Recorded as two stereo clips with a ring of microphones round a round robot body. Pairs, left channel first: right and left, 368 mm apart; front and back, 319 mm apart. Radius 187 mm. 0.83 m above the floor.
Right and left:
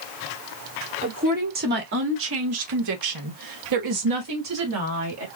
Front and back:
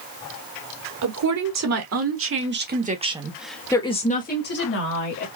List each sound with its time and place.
1.0 s a woman speaking: 160° left, 2.5 m; by 5.3 s 40° left, 2 m